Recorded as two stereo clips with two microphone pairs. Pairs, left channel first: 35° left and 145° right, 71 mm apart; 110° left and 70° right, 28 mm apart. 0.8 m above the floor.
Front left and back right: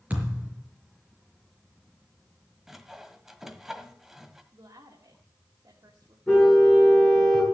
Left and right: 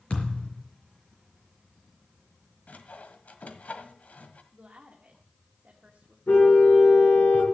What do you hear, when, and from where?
0.1 s a thud: 150° left, 5 m
2.7 s sawing: 135° left, 1.3 m
4.5 s a woman speaking: 125° right, 2 m
6.3 s a car horn: 120° left, 5 m